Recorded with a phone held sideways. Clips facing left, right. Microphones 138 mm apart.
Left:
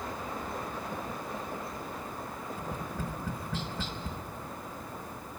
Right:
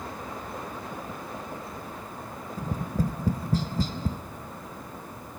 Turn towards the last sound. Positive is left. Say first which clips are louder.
# right 10 dB
turn(degrees=-40)  # may be behind; listen again after turning